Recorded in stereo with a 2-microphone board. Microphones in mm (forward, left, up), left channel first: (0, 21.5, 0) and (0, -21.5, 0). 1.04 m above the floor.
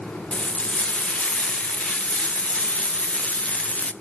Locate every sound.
0.3 s frying: 35° left (ahead or behind), 0.5 m